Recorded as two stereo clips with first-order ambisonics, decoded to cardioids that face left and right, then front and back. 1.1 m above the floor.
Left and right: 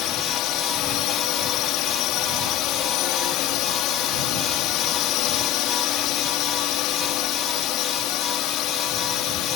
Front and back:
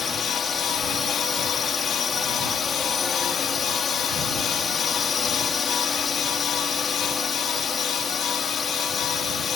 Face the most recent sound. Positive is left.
turn(degrees=65)